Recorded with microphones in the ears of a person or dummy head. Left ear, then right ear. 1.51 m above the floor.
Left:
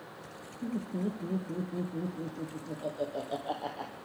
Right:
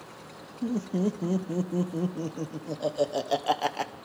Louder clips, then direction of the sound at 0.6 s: Right 7 dB; 70° right (ahead or behind).